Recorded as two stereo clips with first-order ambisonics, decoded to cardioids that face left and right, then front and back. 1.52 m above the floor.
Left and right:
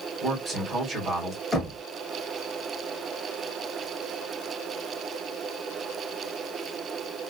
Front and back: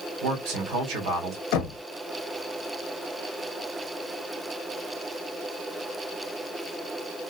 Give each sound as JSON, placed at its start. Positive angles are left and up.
{"t": 0.2, "sound": "a man speaking", "azimuth_deg": -175, "distance_m": 1.4}
{"t": 1.5, "sound": "knocking", "azimuth_deg": 10, "distance_m": 0.7}